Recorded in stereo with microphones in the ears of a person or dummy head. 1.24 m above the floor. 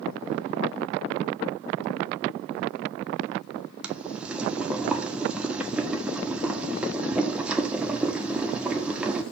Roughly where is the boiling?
Centre.